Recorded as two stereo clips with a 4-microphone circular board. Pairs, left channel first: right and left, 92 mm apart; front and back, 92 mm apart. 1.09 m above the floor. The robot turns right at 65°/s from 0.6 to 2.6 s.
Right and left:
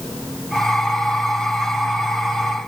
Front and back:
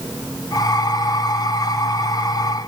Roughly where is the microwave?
No microwave in this recording.